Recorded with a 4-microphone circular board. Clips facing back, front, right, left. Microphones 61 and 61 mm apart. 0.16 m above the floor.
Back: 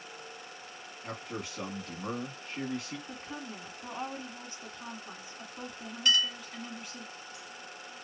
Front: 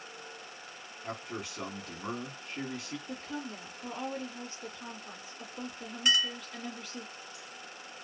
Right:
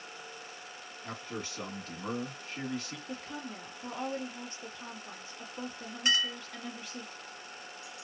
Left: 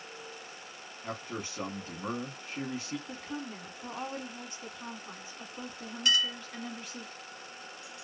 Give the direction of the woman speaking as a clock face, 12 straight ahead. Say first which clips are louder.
Front 2 dB, left 1 dB; 7 o'clock.